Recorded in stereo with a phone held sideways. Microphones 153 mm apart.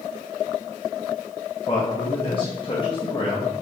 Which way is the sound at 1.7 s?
35° left (ahead or behind).